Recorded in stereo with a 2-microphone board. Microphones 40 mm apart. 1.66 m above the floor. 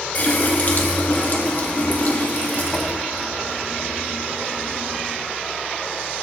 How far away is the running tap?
About 1.2 m.